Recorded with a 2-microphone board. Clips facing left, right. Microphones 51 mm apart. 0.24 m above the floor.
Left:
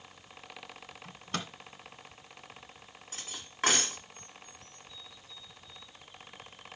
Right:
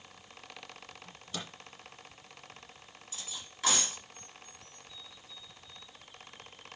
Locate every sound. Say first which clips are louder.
1.0 s a microwave: left 6 dB; 55° left (ahead or behind), 1.3 m
3.1 s cutlery clinking: left 1 dB; 45° left (ahead or behind), 1.9 m